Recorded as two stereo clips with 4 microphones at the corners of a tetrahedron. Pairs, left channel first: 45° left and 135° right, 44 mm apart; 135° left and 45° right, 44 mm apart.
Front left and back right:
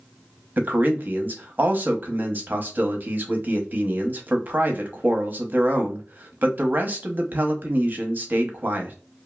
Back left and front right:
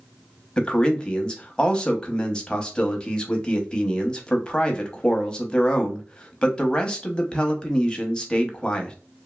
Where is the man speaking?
160° right, 0.7 m.